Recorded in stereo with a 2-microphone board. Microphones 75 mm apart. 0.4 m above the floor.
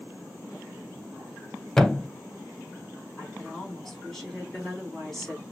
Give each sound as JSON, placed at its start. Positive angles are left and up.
{"t": 1.8, "sound": "a thud", "side_deg": 10, "distance_m": 0.6}
{"t": 3.2, "sound": "a woman speaking", "side_deg": 5, "distance_m": 3.5}